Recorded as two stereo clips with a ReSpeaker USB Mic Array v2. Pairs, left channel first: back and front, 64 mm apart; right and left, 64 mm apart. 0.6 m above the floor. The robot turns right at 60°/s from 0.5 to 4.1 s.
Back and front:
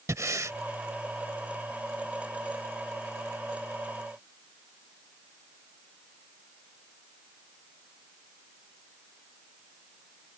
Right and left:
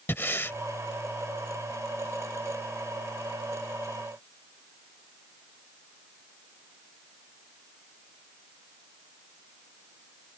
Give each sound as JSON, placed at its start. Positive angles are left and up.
{"t": 0.1, "sound": "breathing", "azimuth_deg": -35}